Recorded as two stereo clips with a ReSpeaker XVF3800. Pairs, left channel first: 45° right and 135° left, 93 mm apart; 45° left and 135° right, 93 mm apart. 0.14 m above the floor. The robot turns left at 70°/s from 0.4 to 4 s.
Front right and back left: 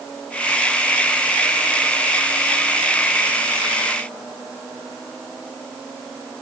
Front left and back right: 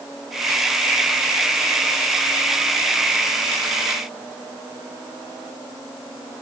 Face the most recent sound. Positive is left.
No sound to turn to.